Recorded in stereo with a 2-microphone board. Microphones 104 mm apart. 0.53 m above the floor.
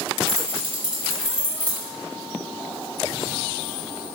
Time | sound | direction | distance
0.3 | keys jangling | 25° right (ahead or behind) | 1.1 m